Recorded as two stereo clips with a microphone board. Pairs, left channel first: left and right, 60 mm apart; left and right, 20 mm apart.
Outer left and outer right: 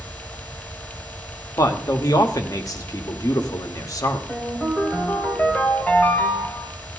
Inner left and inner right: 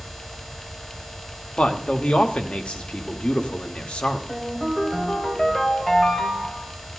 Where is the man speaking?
75° left (ahead or behind), 1.4 m.